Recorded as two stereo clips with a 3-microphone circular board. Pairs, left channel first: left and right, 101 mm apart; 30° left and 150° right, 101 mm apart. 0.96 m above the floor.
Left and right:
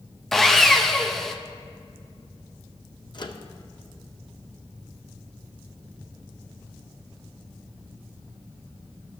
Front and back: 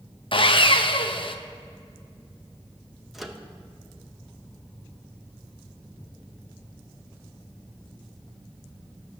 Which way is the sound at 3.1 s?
125° left.